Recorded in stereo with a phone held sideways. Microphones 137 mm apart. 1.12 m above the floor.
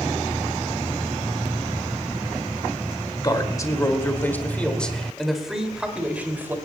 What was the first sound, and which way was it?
A man speaking, 30° left (ahead or behind).